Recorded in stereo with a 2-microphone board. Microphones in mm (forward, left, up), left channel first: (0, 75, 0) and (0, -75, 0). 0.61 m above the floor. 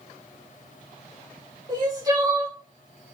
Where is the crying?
25° right (ahead or behind), 1.0 m.